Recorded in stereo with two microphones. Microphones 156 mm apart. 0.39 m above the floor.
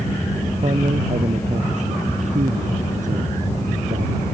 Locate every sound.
0.6 s a man speaking: 45° right (ahead or behind); by 4.2 s 60° right (ahead or behind)